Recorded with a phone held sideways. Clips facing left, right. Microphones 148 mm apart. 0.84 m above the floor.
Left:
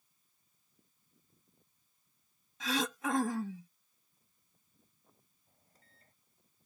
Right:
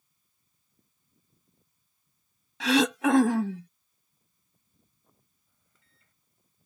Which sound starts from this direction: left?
A microwave, at 5.5 s.